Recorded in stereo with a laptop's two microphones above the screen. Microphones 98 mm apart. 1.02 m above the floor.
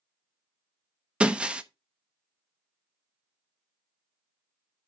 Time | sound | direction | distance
1.2 | breaking glass | 10° right (ahead or behind) | 0.5 m